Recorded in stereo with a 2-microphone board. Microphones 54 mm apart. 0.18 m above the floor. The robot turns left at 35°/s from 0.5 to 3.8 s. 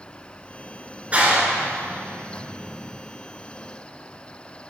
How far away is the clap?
About 2.5 m.